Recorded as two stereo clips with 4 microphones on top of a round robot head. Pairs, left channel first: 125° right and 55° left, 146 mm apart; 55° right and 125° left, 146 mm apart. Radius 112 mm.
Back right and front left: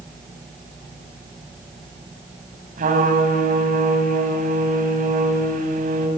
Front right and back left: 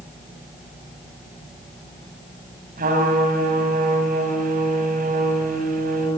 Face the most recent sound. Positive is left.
turn(degrees=95)